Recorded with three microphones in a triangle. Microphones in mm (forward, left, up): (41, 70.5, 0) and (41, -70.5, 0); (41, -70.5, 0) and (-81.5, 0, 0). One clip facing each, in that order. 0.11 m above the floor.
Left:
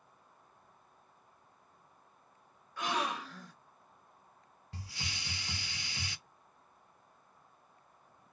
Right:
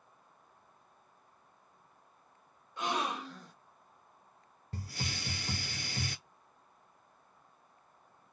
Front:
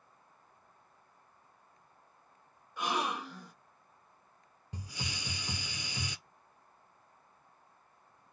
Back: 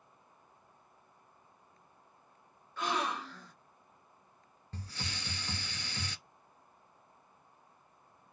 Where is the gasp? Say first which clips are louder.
Right 1 dB, even; 85° right, 1.6 m.